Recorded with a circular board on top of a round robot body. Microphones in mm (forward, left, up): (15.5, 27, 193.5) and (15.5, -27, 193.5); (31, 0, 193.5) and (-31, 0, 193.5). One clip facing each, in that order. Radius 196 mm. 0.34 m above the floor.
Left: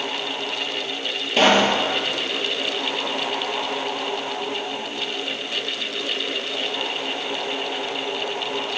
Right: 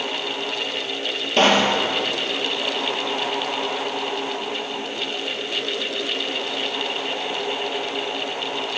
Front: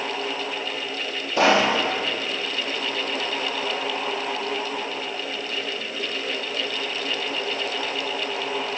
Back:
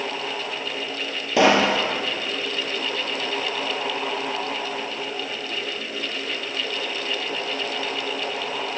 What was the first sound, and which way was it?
A pop, 175° left.